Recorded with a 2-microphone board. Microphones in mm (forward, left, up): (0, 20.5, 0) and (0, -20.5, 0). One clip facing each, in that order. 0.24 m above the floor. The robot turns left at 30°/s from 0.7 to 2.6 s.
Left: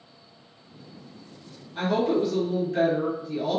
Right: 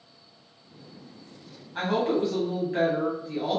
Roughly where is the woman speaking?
Right.